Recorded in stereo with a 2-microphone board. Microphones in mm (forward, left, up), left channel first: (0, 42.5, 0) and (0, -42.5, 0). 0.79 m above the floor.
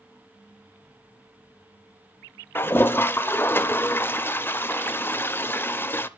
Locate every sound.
2.5 s a toilet flushing: 25° left (ahead or behind), 0.5 m